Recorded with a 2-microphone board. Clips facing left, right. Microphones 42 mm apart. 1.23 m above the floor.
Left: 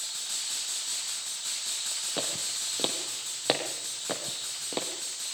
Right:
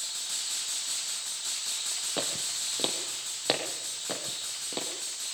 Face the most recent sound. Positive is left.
turn(degrees=20)  # may be behind; listen again after turning